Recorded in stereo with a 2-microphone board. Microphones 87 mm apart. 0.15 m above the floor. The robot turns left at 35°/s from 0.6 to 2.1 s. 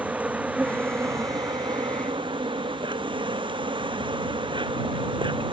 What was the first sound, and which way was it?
An insect, 20° right.